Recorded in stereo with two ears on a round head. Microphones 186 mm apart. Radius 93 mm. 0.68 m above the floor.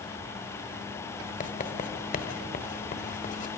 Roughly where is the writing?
Left.